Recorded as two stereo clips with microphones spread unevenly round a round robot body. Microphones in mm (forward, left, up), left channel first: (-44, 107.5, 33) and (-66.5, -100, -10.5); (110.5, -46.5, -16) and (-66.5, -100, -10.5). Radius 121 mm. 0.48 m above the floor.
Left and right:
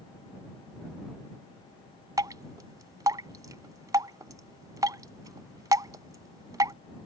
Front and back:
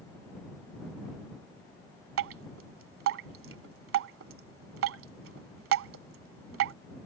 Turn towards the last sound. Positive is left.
turn(degrees=-170)